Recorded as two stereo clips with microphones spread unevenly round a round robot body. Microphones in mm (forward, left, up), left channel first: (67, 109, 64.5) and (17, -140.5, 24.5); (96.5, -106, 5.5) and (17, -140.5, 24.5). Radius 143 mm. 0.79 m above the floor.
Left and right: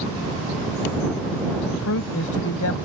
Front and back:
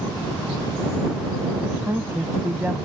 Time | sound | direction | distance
1.7 | a man speaking | 120° left | ?